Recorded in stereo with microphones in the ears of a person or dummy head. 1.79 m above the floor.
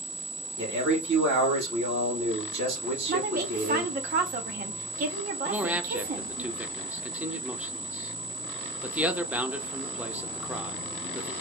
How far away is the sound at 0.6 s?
About 2 m.